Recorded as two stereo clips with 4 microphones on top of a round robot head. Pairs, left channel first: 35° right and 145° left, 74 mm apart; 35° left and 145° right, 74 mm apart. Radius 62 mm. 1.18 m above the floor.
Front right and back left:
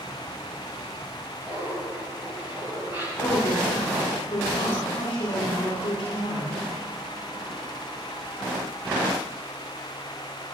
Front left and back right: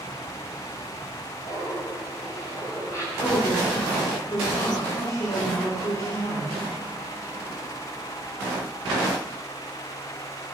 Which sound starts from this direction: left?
Laughter, at 1.4 s.